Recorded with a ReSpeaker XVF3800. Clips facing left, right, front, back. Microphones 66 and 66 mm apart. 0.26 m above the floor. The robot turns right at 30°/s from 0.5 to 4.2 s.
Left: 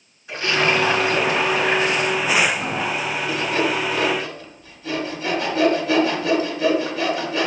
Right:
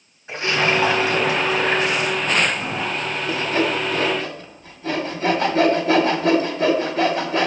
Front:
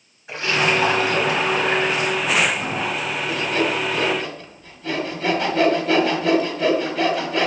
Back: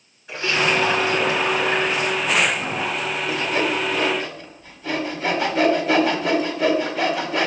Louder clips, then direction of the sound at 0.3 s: Even, front 1 dB; 65° right.